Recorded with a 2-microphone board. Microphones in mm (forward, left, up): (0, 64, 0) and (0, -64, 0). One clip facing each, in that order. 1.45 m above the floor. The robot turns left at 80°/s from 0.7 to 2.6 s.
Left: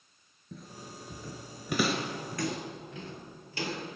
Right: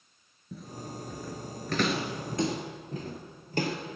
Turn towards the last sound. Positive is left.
turn(degrees=-50)  # may be behind; listen again after turning